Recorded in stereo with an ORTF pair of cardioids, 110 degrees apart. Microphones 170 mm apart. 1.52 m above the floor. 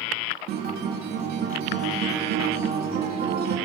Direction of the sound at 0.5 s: 65° right.